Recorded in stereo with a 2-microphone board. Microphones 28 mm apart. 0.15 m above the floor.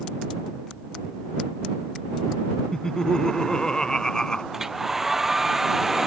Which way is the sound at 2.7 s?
25° left (ahead or behind).